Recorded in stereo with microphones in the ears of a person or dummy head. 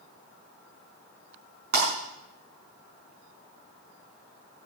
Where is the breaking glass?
55° right (ahead or behind), 5 m.